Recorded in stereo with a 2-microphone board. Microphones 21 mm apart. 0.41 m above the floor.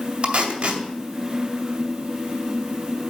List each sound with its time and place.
0.2 s tape being pulled: 60° right (ahead or behind), 2 m